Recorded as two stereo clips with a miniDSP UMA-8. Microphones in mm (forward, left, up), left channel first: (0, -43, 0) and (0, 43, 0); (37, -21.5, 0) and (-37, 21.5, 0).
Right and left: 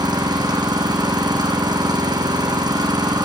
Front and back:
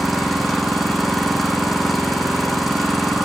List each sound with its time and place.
0.0 s an engine running: 60° left, 2 m